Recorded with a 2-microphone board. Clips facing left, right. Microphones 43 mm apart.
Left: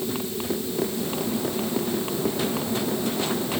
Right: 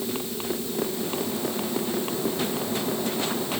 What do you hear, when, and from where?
Only background noise.